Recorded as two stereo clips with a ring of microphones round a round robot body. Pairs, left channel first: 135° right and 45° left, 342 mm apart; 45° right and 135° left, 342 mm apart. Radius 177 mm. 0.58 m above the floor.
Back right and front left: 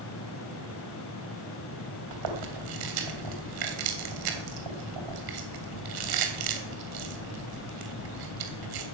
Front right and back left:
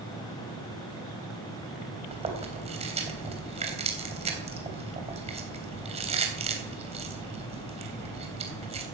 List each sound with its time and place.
2.1 s chewing: 60° left, 3 m